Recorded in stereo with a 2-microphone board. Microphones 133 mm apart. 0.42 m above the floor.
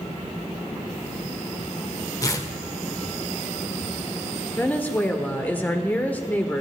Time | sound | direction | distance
2.2 | tearing paper | 25° left (ahead or behind) | 1.3 m
4.6 | a woman speaking | 15° left (ahead or behind) | 1.3 m